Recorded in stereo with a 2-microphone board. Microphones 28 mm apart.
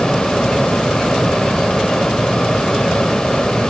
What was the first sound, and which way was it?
Only background noise.